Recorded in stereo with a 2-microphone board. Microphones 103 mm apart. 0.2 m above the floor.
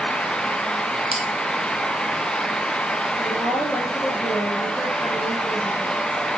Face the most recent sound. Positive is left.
turn(degrees=-10)  # may be behind; listen again after turning